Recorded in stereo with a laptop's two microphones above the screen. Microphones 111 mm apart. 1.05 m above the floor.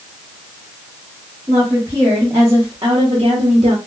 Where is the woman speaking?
15° right (ahead or behind), 1.5 m; by 3.8 s 55° right (ahead or behind), 0.9 m.